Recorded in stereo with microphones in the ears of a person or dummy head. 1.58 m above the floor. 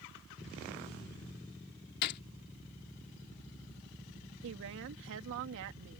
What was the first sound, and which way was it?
A gunshot, 55° left (ahead or behind).